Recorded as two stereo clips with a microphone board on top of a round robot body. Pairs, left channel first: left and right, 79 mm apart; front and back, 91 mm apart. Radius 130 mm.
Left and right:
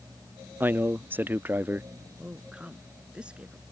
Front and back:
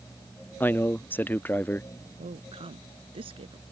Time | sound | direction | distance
0.6 | a man speaking | 50° right | ?
2.2 | a woman speaking | 165° right | ?